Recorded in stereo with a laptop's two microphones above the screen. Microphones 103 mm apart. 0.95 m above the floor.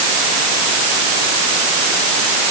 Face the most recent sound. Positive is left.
No sound to turn to.